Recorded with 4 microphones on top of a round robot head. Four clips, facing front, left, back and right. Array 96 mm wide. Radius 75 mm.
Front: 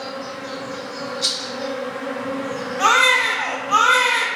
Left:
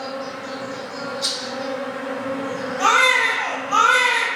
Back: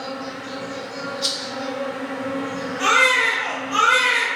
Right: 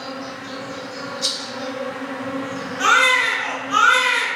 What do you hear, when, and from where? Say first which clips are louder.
0.0 s an insect: left 2 dB, even; 45° left, 1.3 m
1.2 s a rattle: left 1 dB, even; 20° right, 1.8 m
2.8 s a baby crying: right 1 dB, front 2 dB; 35° left, 2.0 m